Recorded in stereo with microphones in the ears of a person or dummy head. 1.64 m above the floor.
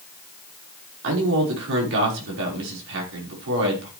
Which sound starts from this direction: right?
A man speaking, at 1.0 s.